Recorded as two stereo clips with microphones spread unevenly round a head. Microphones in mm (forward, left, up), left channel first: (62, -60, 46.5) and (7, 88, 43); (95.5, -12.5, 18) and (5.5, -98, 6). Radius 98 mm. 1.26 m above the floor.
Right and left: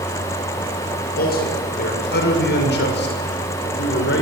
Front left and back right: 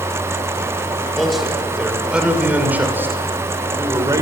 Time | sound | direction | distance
1.2 | a man speaking | 45° right | 6 m